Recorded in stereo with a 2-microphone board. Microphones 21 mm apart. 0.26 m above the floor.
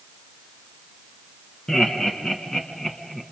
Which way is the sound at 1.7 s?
35° left (ahead or behind).